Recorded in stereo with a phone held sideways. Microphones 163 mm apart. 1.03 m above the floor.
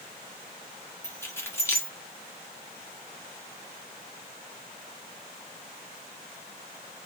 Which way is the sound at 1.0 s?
15° left (ahead or behind).